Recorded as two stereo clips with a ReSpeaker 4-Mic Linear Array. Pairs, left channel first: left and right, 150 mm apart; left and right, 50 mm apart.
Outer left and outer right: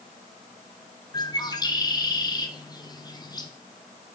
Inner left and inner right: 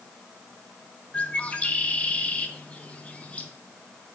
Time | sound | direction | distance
1.1 | a bird | 25° left (ahead or behind) | 0.7 m